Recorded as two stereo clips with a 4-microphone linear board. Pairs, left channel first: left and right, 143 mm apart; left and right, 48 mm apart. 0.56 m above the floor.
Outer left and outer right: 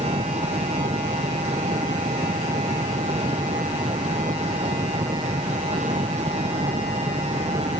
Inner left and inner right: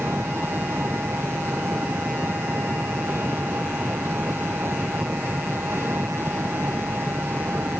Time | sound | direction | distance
0.0 | an engine running | 50° right (ahead or behind) | ?